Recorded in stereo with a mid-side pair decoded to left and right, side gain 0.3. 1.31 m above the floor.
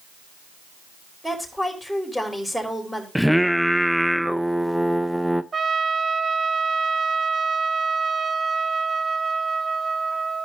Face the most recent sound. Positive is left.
turn(degrees=-50)